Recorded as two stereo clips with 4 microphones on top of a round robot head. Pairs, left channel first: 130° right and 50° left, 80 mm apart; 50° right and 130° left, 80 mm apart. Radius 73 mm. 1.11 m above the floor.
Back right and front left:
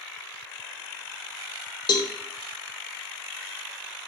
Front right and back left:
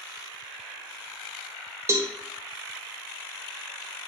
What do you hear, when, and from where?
1.9 s a cowbell: 170° right, 0.6 m